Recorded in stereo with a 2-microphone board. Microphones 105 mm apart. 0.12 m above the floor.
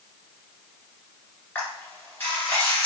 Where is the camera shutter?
20° left (ahead or behind), 1.9 m.